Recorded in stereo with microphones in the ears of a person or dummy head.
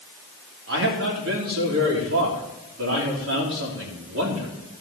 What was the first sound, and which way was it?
A man speaking, 85° right.